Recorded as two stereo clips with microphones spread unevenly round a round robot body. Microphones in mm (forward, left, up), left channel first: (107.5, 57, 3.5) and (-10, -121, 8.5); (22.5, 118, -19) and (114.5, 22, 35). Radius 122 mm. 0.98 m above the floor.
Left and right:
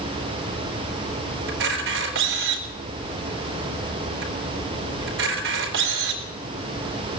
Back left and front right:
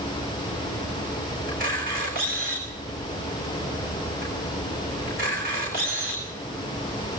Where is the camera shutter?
100° right, 4 m.